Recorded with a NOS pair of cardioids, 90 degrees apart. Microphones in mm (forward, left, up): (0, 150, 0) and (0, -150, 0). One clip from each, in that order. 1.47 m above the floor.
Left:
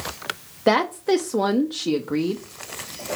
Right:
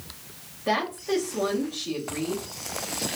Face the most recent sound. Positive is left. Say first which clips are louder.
# left 7 dB
turn(degrees=55)